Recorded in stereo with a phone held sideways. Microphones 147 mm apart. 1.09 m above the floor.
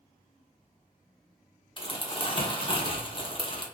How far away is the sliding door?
No sliding door in this recording.